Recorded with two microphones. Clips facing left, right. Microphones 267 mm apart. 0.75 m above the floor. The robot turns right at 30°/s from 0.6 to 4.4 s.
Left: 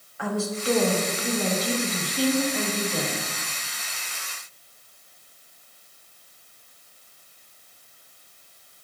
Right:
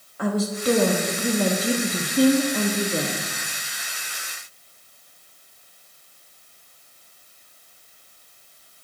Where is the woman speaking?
125° right, 0.8 m; by 3.2 s 45° right, 0.8 m.